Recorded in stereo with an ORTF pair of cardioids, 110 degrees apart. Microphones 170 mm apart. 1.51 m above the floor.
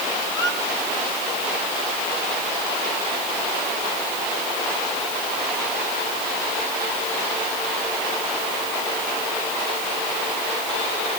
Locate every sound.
0.3 s a squeak: 25° left, 7.5 m